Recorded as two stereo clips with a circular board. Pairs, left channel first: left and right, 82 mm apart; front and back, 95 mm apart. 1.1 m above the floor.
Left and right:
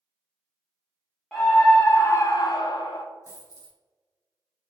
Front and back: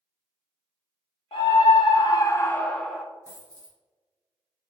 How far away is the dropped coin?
About 1.6 m.